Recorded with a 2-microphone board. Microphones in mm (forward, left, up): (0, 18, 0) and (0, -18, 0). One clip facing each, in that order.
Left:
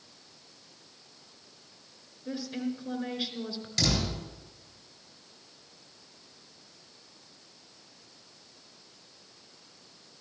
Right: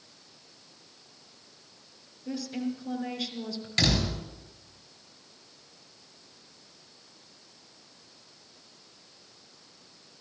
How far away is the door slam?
About 3.5 m.